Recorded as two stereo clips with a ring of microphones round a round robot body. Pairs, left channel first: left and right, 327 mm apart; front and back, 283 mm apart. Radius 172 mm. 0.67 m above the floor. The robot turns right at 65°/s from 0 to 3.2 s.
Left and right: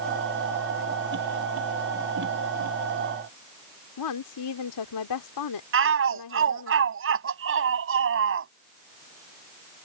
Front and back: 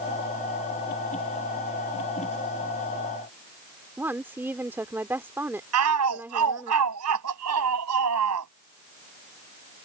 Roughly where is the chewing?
No chewing in this recording.